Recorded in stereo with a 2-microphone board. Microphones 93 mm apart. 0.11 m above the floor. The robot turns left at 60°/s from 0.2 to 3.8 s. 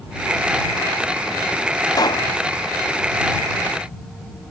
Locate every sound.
1.9 s a pop: 40° left (ahead or behind); by 2.3 s 60° left (ahead or behind)